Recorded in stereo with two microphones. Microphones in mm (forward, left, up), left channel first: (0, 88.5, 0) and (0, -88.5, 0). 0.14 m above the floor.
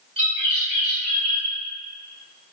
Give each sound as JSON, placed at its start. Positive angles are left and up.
{"t": 0.2, "sound": "a bird", "side_deg": -35, "distance_m": 1.3}